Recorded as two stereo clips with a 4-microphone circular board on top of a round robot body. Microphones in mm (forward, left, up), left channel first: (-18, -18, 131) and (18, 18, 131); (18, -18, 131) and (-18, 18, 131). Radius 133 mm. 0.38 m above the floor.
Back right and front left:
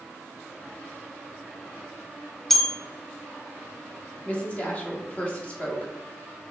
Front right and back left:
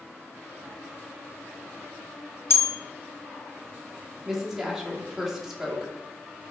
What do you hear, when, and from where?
2.5 s a bell: 50° right, 0.6 m
4.2 s a woman speaking: 145° right, 1.5 m